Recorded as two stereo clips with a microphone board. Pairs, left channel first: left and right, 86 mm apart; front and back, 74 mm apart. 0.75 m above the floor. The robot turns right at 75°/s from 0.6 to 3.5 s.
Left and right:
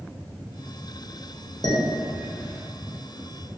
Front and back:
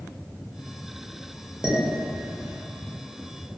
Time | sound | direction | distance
1.6 | dishes clattering | 100° left | 0.5 m